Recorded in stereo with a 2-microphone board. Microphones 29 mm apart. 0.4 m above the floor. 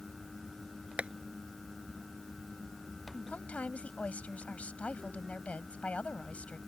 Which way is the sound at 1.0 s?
50° right (ahead or behind).